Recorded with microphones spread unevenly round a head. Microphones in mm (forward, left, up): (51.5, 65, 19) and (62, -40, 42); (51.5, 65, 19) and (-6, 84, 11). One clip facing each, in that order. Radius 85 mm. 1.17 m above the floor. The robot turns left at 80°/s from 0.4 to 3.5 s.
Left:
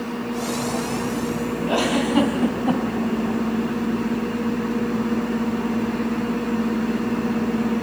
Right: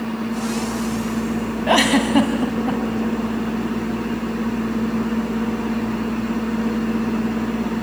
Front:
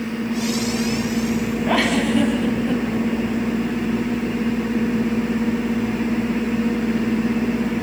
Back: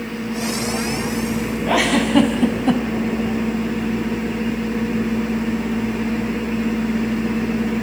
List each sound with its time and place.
1.7 s a giggle: 100° right, 2.5 m; by 2.8 s 165° left, 2.5 m